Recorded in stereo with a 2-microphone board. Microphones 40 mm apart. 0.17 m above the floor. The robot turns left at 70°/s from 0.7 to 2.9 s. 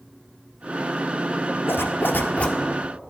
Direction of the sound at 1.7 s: 85° left.